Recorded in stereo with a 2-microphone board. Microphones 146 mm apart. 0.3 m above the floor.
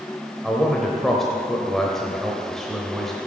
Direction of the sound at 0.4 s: Centre (ahead or behind).